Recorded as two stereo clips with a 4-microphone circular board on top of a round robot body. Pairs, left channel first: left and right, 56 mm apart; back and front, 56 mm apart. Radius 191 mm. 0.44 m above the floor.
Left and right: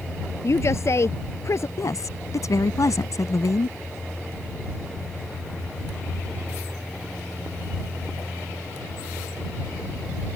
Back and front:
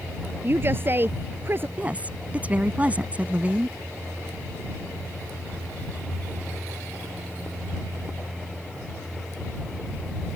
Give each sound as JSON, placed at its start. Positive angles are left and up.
{"t": 0.4, "sound": "a woman speaking", "azimuth_deg": 50}
{"t": 1.8, "sound": "a woman speaking", "azimuth_deg": 65}